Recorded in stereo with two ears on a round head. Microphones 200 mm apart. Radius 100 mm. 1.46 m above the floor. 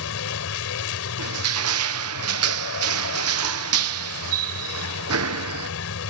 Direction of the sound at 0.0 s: 70° left (ahead or behind).